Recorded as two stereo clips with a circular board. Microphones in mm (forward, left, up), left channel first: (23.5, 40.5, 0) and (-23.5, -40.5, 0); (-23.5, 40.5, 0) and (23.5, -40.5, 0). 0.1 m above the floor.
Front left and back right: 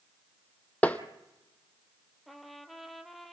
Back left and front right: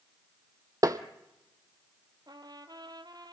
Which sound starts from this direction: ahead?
Tapping, at 0.8 s.